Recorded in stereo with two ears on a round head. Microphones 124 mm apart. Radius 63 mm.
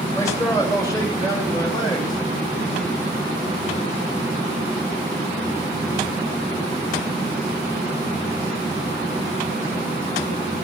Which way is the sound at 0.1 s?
25° left (ahead or behind).